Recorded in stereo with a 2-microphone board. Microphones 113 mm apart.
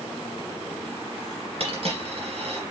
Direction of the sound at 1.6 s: 60° right (ahead or behind).